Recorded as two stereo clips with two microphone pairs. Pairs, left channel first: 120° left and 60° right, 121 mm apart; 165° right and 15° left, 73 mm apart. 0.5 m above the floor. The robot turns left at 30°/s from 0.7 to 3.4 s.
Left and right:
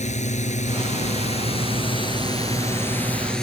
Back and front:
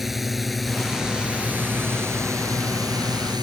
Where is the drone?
100° left; by 3.4 s 35° left.